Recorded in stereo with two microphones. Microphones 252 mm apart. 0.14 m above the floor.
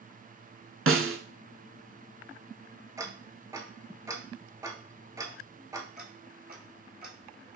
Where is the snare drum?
55° right (ahead or behind), 0.6 m.